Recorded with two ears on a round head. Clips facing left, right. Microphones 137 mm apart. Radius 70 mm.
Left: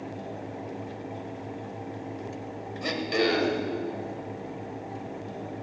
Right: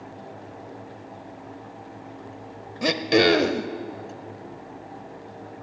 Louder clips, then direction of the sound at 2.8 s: Right 7 dB; 70° right (ahead or behind).